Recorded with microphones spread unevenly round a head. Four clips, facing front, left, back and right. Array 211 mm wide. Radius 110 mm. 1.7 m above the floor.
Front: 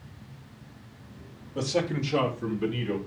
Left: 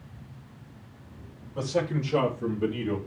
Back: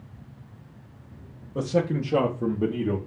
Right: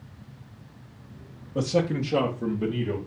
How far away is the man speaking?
About 2 m.